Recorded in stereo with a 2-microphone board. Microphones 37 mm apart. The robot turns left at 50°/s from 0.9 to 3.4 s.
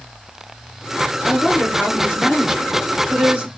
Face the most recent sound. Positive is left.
turn(degrees=-110)